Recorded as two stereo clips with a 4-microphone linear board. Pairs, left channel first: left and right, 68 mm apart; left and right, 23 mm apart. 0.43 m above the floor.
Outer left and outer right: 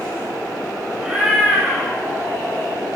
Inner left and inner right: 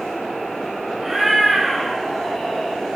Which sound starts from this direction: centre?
A cat meowing, at 1.0 s.